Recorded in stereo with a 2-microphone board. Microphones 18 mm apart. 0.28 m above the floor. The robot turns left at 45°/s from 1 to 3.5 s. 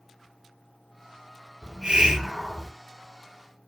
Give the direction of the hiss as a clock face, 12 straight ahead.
4 o'clock.